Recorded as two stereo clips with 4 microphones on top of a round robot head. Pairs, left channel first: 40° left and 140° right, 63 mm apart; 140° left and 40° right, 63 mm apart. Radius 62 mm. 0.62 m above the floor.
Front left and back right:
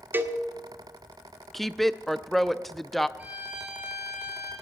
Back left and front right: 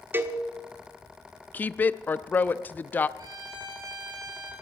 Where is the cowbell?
90° right, 1.1 m.